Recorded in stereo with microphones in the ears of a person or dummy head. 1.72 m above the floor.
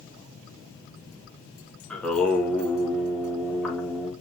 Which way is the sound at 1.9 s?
10° left (ahead or behind).